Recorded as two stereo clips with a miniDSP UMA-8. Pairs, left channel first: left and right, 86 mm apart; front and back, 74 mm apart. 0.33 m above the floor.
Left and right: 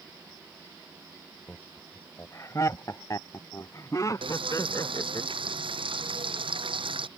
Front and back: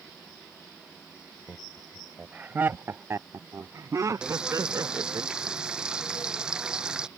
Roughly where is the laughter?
Ahead left.